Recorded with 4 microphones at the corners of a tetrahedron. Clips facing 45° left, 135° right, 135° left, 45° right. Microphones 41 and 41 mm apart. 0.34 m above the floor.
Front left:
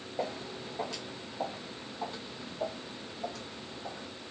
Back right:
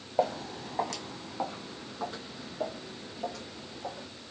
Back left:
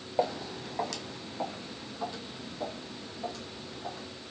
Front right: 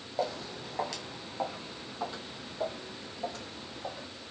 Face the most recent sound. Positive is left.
turn(degrees=-100)